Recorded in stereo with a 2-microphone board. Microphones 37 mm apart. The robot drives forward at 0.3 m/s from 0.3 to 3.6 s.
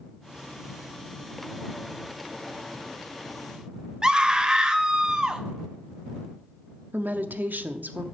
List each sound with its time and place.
4.0 s a scream: 20° right (ahead or behind), 0.8 m
6.9 s a woman speaking: 60° right (ahead or behind), 0.5 m